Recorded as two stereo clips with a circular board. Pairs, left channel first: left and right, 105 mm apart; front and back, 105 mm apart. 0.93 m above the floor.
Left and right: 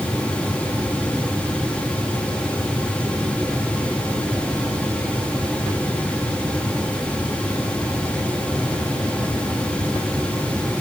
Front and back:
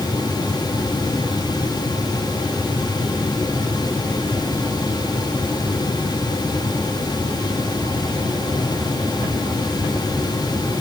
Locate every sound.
Only background noise.